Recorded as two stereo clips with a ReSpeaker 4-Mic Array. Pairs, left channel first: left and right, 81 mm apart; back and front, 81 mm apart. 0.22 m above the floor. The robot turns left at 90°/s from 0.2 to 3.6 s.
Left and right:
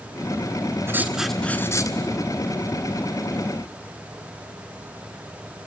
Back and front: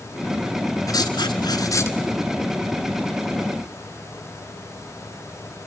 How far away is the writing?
About 1.4 m.